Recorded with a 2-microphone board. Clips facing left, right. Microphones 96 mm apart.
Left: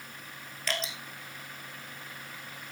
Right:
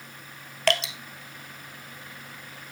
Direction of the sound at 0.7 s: 70° right (ahead or behind).